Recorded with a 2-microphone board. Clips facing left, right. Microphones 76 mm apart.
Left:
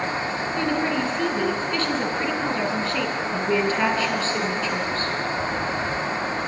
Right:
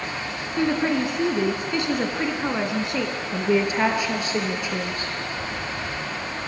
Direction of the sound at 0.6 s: 15° right (ahead or behind).